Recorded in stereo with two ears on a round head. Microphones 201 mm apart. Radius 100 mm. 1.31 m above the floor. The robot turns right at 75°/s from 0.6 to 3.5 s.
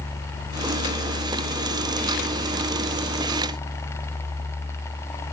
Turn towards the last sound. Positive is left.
No sound to turn to.